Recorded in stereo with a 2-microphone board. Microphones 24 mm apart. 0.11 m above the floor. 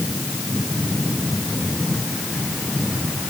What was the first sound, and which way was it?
Only background noise.